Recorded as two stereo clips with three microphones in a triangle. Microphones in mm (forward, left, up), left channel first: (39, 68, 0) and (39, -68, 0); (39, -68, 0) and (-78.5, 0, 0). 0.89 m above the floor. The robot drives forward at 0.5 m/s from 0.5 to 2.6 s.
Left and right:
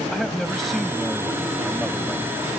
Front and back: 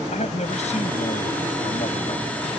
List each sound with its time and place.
0.1 s a man speaking: straight ahead